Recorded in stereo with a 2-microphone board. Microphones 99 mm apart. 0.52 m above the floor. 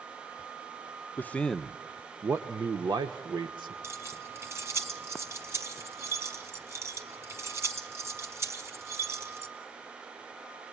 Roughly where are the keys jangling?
Right.